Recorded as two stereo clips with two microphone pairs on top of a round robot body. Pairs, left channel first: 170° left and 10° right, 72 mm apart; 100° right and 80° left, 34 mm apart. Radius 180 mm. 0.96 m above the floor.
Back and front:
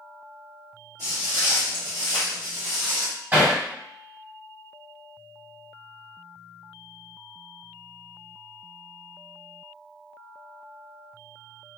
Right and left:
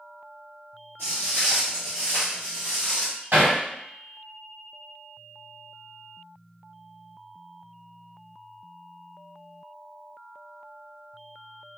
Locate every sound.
1.0 s footsteps: 25° left, 0.9 m; by 3.1 s 55° left, 1.8 m
3.3 s hammering: 45° left, 1.6 m